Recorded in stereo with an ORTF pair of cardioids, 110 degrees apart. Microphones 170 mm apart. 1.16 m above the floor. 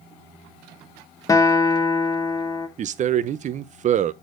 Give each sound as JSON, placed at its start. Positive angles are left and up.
{"t": 1.3, "sound": "a guitar", "azimuth_deg": 20, "distance_m": 1.0}
{"t": 2.8, "sound": "a man speaking", "azimuth_deg": -45, "distance_m": 0.6}